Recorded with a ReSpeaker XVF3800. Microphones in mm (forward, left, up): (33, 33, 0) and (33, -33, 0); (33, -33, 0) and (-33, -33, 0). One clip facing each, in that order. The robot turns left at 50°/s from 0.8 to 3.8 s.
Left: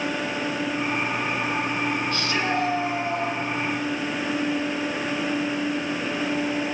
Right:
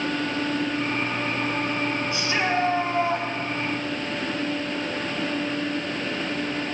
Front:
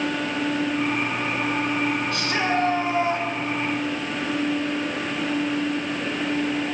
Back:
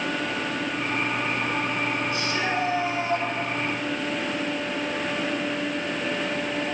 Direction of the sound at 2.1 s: 15° right.